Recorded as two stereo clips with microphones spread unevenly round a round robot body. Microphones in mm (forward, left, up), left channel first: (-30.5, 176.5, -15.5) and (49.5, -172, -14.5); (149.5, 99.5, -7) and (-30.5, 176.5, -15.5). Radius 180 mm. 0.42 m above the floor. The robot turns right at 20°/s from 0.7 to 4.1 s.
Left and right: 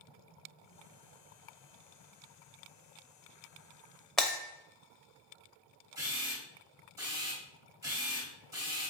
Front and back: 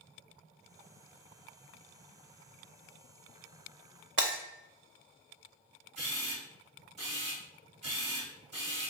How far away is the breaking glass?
About 0.6 m.